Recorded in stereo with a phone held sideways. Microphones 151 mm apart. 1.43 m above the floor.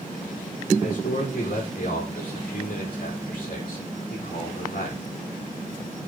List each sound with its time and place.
0.8 s a man speaking: 75° left (ahead or behind), 5 m